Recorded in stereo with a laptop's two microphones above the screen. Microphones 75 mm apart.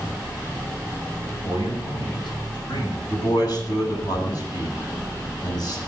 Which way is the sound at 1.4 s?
70° left (ahead or behind).